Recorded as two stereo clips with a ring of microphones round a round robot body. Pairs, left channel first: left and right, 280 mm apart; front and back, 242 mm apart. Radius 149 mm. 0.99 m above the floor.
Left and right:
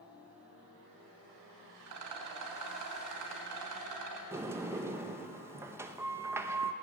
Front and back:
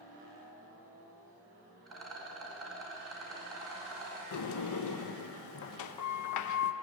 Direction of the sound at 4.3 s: 10° right.